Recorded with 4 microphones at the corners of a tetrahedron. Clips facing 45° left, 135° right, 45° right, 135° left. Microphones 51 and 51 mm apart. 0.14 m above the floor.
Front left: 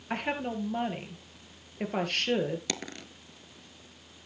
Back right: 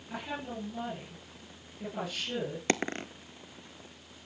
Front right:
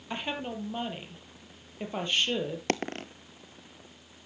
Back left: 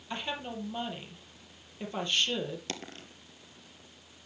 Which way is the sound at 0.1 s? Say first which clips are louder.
Front left 6 dB, front right 2 dB; 25° left.